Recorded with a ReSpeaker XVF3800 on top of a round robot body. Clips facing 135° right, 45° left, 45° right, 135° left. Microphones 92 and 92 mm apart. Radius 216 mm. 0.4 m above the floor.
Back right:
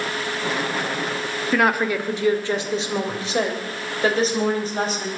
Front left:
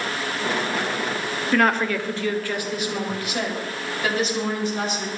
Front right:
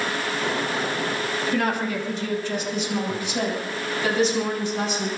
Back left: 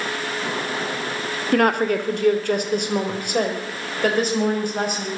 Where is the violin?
I don't hear a violin.